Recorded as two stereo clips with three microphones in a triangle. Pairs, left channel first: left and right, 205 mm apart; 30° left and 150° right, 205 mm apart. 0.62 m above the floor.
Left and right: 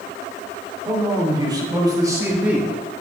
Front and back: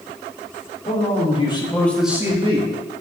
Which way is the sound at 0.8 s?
20° right.